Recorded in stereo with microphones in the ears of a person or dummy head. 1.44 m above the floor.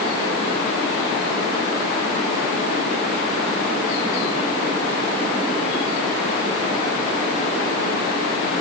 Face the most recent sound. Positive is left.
No sound to turn to.